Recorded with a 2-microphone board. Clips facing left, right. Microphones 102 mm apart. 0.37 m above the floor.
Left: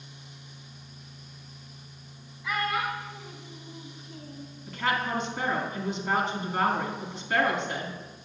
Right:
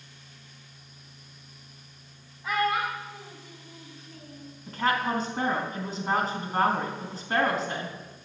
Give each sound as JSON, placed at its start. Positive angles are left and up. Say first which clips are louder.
{"t": 2.4, "sound": "a child speaking", "louder": "right 3 dB", "side_deg": -45, "distance_m": 1.6}
{"t": 4.7, "sound": "a woman speaking", "louder": "right 2 dB", "side_deg": -35, "distance_m": 3.5}